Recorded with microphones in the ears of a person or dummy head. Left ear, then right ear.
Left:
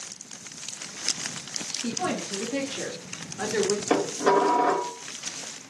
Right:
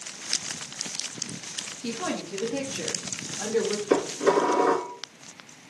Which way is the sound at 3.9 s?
20° left (ahead or behind).